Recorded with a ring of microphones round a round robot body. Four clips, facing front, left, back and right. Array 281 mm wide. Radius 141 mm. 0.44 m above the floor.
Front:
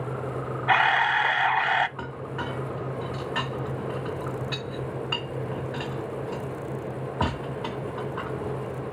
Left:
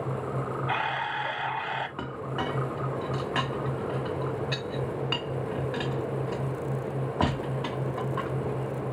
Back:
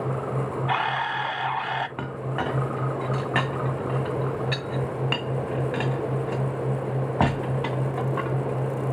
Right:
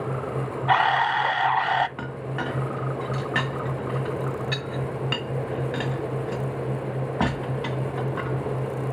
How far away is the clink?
About 2 m.